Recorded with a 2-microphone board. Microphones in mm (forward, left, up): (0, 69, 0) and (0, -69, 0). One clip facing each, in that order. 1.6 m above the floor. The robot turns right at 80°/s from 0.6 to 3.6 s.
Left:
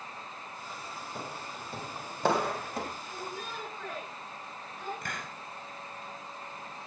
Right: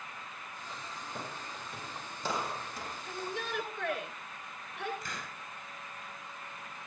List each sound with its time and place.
1.1 s footsteps: centre (ahead or behind), 2.5 m; by 2.9 s 55° left (ahead or behind), 4.5 m
3.0 s a shout: 120° right, 8.5 m; by 4.9 s 75° right, 8.5 m
5.0 s a hiss: 60° left (ahead or behind), 4 m